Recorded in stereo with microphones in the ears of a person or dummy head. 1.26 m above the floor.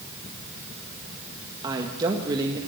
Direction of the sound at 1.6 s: 25° right (ahead or behind).